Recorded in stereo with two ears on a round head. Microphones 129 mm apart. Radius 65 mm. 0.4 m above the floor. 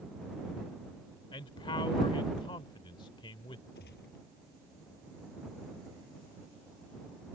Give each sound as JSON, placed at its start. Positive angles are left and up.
{"t": 1.3, "sound": "a man speaking", "side_deg": 35}
{"t": 3.8, "sound": "a gunshot", "side_deg": 85}